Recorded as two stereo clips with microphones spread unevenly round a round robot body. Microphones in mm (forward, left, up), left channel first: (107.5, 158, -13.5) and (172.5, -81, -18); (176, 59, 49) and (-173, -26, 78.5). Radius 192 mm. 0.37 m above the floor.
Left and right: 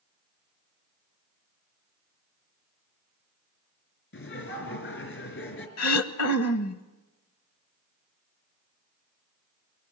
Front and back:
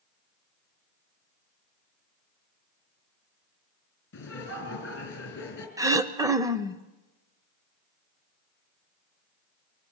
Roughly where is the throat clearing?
Left.